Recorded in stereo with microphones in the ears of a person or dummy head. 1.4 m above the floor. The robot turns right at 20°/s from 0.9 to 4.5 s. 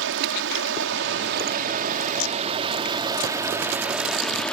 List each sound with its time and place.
0.0 s running water: 65° right; by 4.5 s 5° left